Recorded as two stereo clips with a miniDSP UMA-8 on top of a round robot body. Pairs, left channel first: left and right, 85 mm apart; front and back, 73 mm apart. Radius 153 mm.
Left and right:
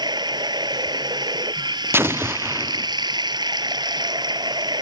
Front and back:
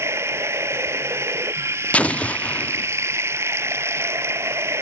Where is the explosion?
60° right.